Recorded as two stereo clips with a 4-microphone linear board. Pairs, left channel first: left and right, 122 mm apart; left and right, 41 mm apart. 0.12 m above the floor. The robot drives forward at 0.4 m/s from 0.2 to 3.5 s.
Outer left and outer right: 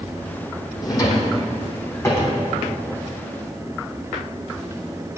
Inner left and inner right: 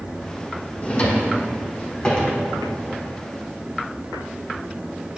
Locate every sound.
0.8 s a drawer: 30° left (ahead or behind), 1.1 m; by 2.4 s 20° left (ahead or behind), 1.7 m